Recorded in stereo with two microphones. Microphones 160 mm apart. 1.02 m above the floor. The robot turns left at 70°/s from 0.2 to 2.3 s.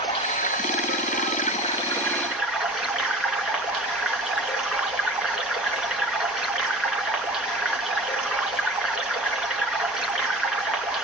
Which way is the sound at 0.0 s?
145° left.